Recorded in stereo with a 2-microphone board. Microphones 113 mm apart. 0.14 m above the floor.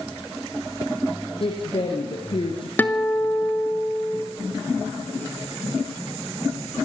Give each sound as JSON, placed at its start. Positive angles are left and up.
{"t": 1.4, "sound": "a woman speaking", "side_deg": 50, "distance_m": 3.0}
{"t": 2.8, "sound": "a guitar", "side_deg": 15, "distance_m": 1.7}